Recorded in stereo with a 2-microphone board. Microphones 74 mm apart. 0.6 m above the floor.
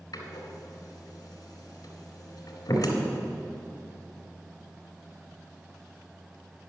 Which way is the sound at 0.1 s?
60° left (ahead or behind).